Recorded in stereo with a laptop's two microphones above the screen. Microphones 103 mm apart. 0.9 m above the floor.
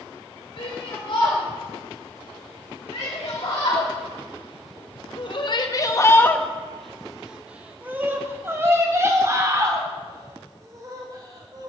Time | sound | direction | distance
0.6 | a shout | 65° left (ahead or behind) | 4 m